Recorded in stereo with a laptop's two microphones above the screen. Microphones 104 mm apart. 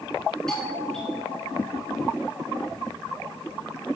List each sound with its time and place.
0.5 s a doorbell: 10° left (ahead or behind), 6.5 m